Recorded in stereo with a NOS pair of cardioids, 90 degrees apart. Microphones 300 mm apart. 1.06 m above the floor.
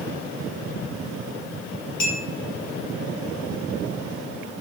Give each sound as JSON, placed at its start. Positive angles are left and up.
{"t": 2.0, "sound": "a clink", "azimuth_deg": 60, "distance_m": 1.6}